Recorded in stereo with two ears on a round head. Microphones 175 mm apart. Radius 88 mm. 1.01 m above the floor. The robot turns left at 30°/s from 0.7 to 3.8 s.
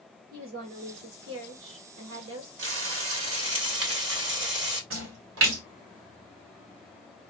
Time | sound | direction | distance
0.3 | a woman speaking | 50° right | 1.2 m
2.6 | frying | 80° right | 3 m
4.9 | a splash | 70° right (ahead or behind) | 1.9 m